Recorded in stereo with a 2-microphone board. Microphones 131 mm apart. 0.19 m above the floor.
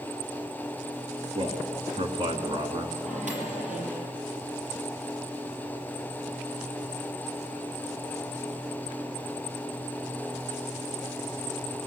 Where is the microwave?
75° right (ahead or behind), 3.5 m.